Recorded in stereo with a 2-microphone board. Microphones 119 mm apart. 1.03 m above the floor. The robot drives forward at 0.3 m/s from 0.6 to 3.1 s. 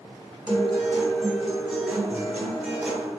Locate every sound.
0.5 s a guitar: centre (ahead or behind), 1.6 m